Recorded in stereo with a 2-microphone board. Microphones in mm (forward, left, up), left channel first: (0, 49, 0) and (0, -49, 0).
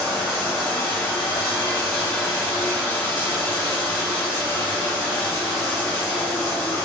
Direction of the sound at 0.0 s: 25° left (ahead or behind).